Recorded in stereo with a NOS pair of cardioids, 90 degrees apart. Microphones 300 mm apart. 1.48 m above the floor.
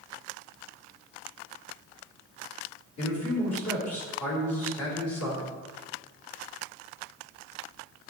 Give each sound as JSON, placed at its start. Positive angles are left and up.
{"t": 3.0, "sound": "a man speaking", "azimuth_deg": 60, "distance_m": 4.0}